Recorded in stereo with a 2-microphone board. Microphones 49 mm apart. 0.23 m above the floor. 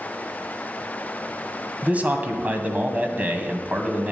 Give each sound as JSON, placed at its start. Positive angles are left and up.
{"t": 1.8, "sound": "a man speaking", "side_deg": -30, "distance_m": 1.6}